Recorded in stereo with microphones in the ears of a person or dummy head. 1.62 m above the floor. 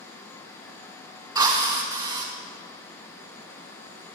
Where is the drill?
20° right (ahead or behind), 0.6 m.